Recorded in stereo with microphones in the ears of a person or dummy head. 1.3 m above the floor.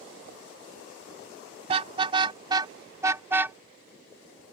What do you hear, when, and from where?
1.7 s a car horn: 35° right (ahead or behind); by 3.6 s 10° right (ahead or behind)